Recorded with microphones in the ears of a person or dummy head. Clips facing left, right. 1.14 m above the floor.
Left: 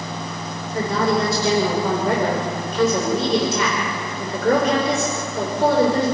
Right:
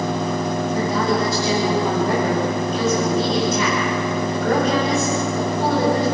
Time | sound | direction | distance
0.7 | a woman speaking | 65° left (ahead or behind) | 5 m